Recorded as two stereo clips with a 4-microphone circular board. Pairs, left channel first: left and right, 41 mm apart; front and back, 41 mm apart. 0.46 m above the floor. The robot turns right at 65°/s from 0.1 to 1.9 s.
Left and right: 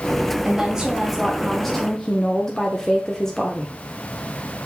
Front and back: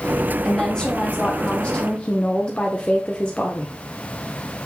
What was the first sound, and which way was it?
A woman speaking, 65° right.